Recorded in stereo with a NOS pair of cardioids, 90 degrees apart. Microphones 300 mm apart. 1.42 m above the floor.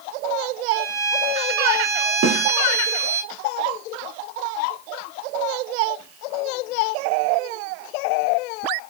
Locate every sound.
0.7 s a violin: 35° right, 3 m
2.2 s a snare drum: 60° right, 2.5 m